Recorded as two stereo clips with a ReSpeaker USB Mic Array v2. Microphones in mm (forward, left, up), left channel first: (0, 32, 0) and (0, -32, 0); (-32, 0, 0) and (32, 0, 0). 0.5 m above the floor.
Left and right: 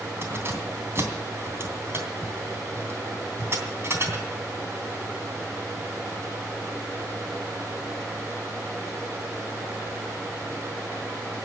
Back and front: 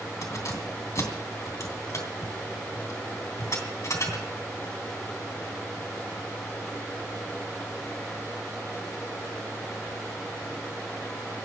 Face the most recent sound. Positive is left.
turn(degrees=-140)